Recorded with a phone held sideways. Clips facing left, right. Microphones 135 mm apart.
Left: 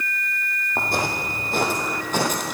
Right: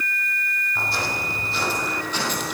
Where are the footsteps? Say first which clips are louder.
Left 4 dB; 50° left (ahead or behind), 3 m; by 2.5 s 45° left (ahead or behind), 2.5 m.